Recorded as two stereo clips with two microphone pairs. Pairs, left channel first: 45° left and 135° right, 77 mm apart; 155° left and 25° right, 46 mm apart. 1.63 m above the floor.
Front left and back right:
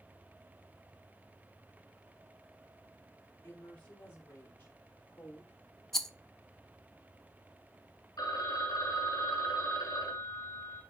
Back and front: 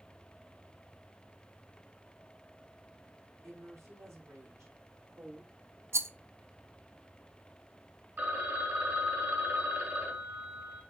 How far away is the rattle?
About 0.7 m.